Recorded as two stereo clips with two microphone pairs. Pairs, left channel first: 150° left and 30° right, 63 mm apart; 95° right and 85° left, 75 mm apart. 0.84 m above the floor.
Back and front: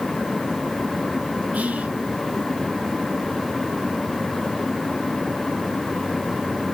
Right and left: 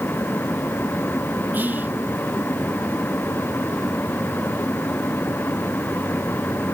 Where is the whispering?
35° left, 0.6 m.